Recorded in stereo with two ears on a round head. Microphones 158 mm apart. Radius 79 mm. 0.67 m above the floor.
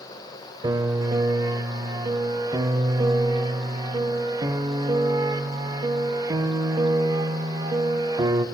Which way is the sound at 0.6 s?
20° right (ahead or behind).